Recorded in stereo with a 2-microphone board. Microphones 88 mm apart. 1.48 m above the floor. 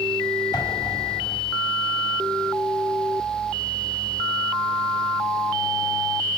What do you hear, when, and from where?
0.5 s an explosion: 45° left (ahead or behind), 8 m